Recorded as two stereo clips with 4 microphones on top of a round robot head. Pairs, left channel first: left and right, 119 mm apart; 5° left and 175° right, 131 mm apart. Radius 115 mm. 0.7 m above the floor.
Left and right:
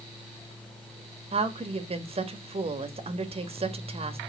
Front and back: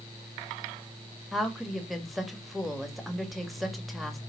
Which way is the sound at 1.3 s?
85° right.